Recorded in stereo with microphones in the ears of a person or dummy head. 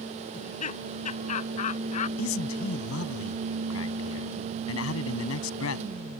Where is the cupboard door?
No cupboard door in this recording.